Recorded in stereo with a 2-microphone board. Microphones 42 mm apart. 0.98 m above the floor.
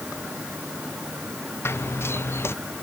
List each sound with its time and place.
1.6 s running footsteps: 65° left (ahead or behind)